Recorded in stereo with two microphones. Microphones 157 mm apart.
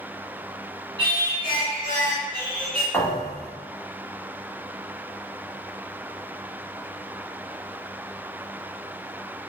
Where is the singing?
30° right (ahead or behind), 1.3 m.